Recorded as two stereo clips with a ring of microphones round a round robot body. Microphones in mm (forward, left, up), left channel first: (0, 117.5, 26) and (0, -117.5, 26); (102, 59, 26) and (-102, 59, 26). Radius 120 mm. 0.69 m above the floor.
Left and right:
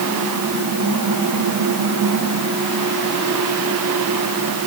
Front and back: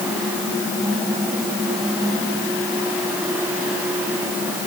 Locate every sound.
Only background noise.